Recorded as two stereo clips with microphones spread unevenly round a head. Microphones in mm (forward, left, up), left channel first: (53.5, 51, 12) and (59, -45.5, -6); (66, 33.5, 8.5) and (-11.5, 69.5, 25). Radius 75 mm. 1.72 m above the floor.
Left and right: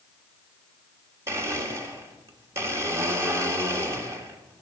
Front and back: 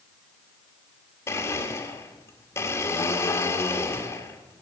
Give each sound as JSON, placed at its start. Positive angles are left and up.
{"t": 1.3, "sound": "a blender", "azimuth_deg": -60, "distance_m": 1.2}